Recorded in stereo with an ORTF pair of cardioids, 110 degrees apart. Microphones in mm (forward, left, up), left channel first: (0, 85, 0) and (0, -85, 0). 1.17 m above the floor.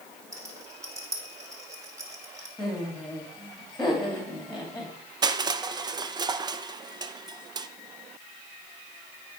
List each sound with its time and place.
0.3 s a rattle: 20° right, 2 m
2.6 s laughter: straight ahead, 2.5 m
5.2 s crushing: 25° right, 0.5 m